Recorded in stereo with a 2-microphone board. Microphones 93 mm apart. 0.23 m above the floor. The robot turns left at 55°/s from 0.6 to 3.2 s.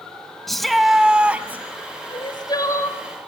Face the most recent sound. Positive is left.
turn(degrees=10)